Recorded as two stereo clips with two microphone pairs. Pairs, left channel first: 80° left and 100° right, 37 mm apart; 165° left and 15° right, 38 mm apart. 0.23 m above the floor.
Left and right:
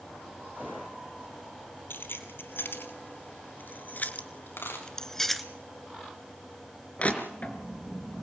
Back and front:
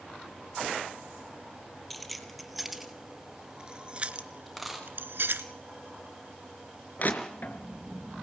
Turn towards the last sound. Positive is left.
turn(degrees=130)